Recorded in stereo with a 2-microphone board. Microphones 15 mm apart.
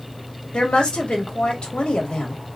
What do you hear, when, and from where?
0.5 s a woman speaking: 80° left, 1.7 m